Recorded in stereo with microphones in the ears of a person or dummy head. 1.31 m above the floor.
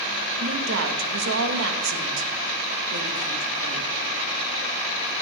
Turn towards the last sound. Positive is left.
turn(degrees=-65)  # may be behind; listen again after turning